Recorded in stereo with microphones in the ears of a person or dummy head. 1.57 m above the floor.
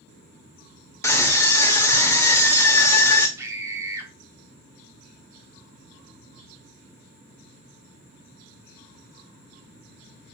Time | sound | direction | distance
1.0 | a scream | 10° left (ahead or behind) | 0.6 m
3.4 | a scream | 15° right (ahead or behind) | 0.9 m